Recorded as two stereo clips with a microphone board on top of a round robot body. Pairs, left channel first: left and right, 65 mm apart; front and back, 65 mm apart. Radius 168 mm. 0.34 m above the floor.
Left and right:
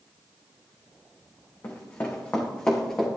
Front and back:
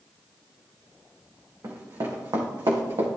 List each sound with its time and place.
1.6 s running footsteps: 140° left, 2.5 m; by 3.1 s 170° left, 2.5 m